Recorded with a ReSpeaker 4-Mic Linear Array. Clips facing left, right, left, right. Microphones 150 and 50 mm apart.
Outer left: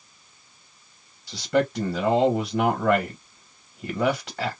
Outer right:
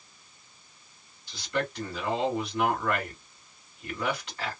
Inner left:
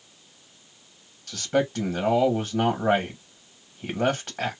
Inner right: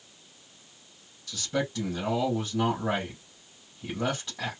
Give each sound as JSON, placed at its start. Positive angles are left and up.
{"t": 1.3, "sound": "a man speaking", "side_deg": 75, "distance_m": 1.2}